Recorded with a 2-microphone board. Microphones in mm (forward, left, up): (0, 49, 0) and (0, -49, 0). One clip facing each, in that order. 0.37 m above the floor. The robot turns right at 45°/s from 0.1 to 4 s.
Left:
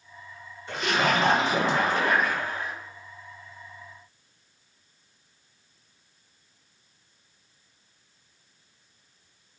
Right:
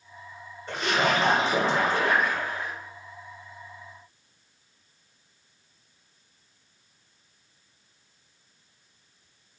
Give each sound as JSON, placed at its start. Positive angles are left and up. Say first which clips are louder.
{"t": 0.7, "sound": "a splash", "louder": "even", "azimuth_deg": -95, "distance_m": 2.0}